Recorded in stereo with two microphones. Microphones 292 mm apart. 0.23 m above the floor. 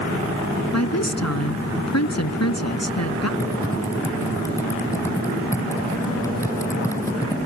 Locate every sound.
0.7 s a woman speaking: 60° left (ahead or behind)
3.4 s typing on a keyboard: 10° left (ahead or behind)